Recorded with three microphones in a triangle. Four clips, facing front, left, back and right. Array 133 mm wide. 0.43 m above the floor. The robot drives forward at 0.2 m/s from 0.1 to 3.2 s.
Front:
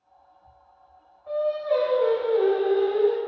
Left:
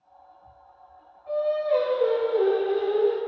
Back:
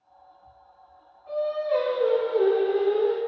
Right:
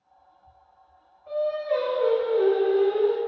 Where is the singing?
10° right, 0.9 m; by 3.2 s 15° right, 0.5 m.